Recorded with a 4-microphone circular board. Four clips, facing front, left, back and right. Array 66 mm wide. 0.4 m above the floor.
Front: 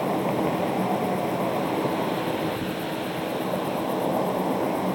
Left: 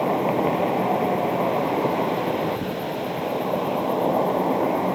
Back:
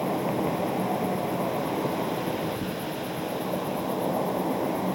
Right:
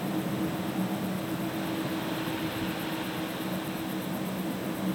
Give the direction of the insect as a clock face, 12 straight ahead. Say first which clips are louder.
Left 10 dB, front 2 dB; 9 o'clock.